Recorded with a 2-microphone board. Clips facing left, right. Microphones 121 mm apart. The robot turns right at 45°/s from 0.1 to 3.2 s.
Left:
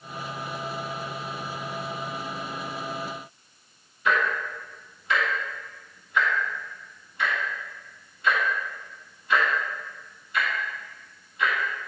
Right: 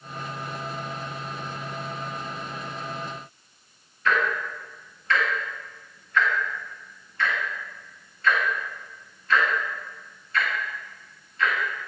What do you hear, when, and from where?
4.0 s ticking: 15° left (ahead or behind), 1.7 m